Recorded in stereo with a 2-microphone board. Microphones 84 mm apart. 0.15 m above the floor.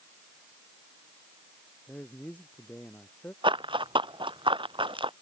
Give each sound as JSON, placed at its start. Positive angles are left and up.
{"t": 1.9, "sound": "a man speaking", "side_deg": 15}
{"t": 3.4, "sound": "running footsteps", "side_deg": -80}